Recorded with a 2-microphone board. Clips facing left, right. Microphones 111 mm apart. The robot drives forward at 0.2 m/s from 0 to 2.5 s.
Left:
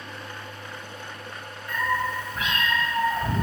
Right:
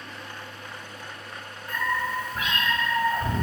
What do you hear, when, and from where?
1.7 s a cat meowing: 50° right (ahead or behind), 1.6 m